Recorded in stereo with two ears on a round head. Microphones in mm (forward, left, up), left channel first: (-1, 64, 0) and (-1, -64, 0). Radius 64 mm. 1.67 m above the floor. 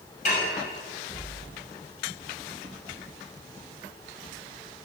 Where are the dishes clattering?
55° left (ahead or behind), 6.5 m.